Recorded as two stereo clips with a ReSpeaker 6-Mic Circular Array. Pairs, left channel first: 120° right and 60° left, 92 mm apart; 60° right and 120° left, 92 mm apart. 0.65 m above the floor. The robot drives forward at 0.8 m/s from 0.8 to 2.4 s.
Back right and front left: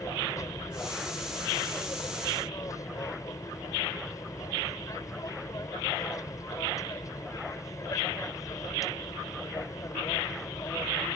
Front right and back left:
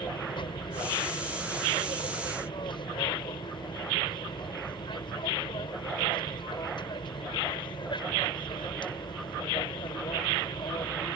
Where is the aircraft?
70° right; by 11.2 s 75° right.